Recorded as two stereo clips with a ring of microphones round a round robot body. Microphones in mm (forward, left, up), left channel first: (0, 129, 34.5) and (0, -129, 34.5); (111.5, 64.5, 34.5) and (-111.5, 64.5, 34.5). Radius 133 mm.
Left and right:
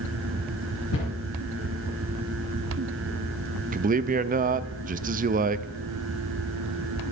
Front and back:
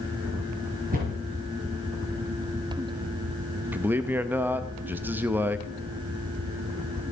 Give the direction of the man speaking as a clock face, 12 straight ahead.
4 o'clock.